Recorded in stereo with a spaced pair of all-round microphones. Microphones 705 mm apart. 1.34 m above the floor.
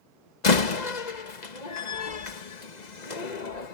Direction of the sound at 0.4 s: 75° left (ahead or behind).